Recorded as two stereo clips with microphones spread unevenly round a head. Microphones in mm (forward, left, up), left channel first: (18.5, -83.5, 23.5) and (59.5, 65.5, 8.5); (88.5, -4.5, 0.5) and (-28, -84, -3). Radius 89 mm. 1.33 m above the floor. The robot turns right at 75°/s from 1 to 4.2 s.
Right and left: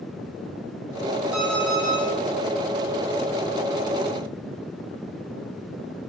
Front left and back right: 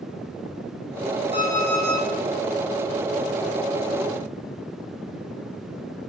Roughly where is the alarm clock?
Behind left.